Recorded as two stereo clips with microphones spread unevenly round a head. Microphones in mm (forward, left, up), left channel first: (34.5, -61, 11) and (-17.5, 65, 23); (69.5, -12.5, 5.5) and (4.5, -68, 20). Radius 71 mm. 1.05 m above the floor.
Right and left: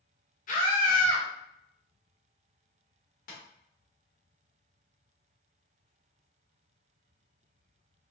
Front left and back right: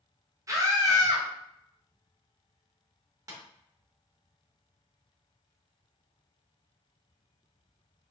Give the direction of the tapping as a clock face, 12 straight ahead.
3 o'clock.